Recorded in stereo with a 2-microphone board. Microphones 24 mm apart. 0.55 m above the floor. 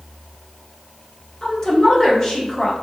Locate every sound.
1.4 s a woman speaking: 30° left (ahead or behind), 0.9 m